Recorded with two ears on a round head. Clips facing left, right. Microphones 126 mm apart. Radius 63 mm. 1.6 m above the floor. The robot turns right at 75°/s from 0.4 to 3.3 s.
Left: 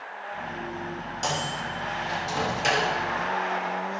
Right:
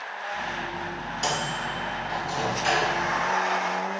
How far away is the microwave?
About 2.5 m.